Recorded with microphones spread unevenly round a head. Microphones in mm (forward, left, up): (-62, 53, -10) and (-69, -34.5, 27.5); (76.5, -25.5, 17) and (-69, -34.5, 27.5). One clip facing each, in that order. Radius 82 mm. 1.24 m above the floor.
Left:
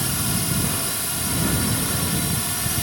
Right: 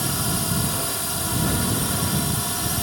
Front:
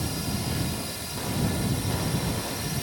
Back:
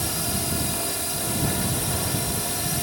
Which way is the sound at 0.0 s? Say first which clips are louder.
Even, back 1 dB; 150° right.